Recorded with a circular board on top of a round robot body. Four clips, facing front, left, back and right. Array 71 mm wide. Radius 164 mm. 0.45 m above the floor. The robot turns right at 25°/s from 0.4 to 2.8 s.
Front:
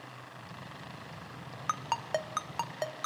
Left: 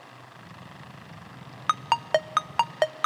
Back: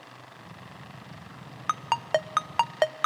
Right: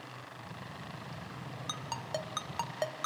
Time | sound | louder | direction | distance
1.7 | a ringtone | left 16 dB, back 6 dB | 105° left | 0.6 m